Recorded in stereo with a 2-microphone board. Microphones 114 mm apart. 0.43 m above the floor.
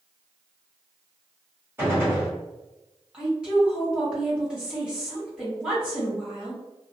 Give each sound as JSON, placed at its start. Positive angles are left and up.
{"t": 1.8, "sound": "a gunshot", "side_deg": -20, "distance_m": 1.6}
{"t": 3.1, "sound": "a woman speaking", "side_deg": -5, "distance_m": 1.9}